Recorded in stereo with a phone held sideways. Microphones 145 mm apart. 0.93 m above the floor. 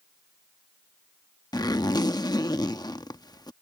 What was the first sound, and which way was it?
A zipper, 25° left (ahead or behind).